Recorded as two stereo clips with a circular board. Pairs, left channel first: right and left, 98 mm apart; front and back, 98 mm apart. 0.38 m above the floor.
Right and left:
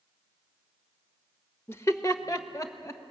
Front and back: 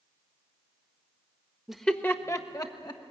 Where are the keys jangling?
No keys jangling in this recording.